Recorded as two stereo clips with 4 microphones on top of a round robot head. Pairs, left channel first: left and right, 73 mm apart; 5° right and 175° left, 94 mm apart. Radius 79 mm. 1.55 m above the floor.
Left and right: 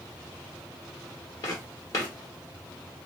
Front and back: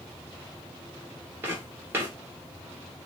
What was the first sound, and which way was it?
Footsteps, 115° left.